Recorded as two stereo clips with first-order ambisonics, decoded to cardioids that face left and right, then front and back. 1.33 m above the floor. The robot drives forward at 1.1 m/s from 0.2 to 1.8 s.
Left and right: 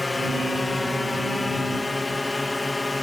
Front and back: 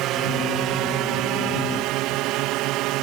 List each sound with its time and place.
0.0 s a drone: 170° left; by 3.0 s 175° left